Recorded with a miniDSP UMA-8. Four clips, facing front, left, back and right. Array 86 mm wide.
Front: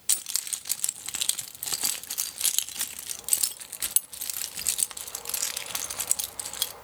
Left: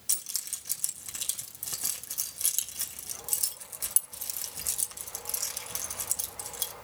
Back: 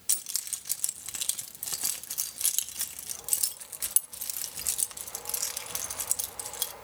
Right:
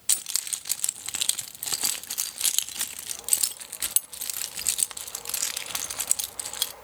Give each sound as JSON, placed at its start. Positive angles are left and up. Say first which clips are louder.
{"t": 0.1, "sound": "keys jangling", "louder": "right 9 dB, front 6 dB", "azimuth_deg": -60, "distance_m": 0.8}